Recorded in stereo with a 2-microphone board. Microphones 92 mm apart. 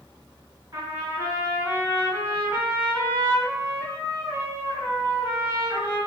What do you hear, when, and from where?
0.7 s a trumpet: 40° right (ahead or behind), 1.9 m